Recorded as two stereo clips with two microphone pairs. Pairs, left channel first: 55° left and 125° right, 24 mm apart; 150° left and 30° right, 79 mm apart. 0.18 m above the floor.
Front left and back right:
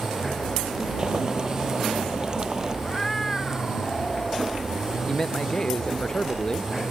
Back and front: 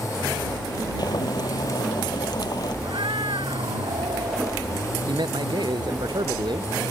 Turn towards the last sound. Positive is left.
turn(degrees=-5)